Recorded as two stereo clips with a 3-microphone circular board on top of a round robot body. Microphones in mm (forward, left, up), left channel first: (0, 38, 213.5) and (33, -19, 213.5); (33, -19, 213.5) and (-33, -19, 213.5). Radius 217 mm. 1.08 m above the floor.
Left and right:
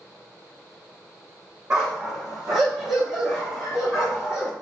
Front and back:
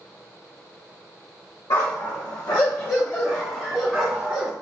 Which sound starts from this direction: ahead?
A dog barking, at 1.7 s.